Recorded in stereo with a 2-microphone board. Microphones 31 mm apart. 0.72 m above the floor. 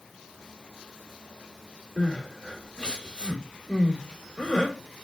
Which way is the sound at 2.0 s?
30° left (ahead or behind).